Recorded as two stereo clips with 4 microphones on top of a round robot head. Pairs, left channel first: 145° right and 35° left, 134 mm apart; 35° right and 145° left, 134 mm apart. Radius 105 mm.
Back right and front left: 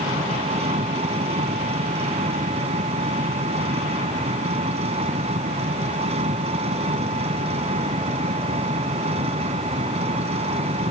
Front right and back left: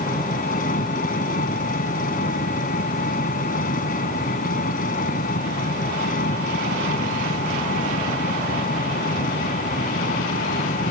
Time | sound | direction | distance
0.0 | an engine running | 10° right | ?